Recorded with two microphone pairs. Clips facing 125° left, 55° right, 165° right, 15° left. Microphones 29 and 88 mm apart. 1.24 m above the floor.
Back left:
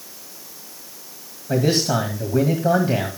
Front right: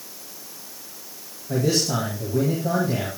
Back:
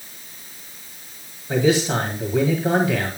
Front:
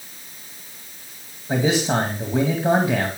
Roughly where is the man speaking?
Left.